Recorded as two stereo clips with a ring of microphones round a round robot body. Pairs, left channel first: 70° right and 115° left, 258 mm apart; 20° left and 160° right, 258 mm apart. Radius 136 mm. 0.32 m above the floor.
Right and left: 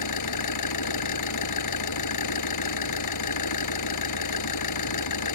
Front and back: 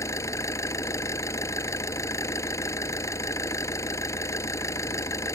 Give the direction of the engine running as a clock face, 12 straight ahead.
2 o'clock.